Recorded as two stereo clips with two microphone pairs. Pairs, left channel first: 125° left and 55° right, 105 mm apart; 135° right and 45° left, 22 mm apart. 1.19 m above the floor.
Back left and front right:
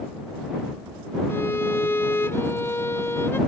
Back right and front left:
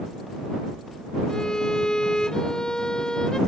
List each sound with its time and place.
1.3 s a violin: 175° right